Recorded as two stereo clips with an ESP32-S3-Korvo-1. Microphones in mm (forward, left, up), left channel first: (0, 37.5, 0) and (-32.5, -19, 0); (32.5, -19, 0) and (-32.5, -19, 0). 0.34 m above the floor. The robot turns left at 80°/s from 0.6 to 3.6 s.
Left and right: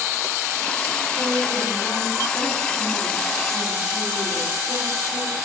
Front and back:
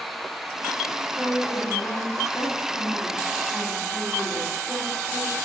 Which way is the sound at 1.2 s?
80° left.